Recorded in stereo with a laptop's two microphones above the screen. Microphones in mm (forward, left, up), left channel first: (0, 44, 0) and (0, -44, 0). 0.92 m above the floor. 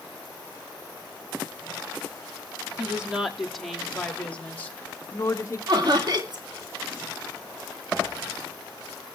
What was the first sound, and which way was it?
A woman speaking, 15° right (ahead or behind).